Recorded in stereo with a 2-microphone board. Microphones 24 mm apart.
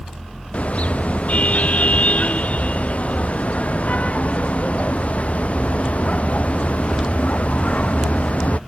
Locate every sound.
0.5 s a car horn: 60° left (ahead or behind)